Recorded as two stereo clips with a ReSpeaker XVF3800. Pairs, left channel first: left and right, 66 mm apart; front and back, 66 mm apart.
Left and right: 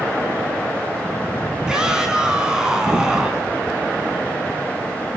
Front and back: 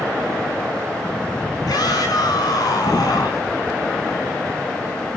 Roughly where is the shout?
Ahead.